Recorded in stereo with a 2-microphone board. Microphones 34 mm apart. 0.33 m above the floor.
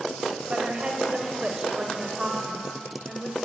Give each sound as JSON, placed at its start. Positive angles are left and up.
{"t": 0.5, "sound": "a woman speaking", "side_deg": -35, "distance_m": 1.4}